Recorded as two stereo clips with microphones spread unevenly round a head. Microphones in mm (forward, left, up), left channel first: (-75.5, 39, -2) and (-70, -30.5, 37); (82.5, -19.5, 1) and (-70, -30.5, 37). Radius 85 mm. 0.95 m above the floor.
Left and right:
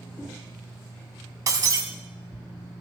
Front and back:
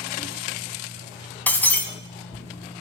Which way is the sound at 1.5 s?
80° right.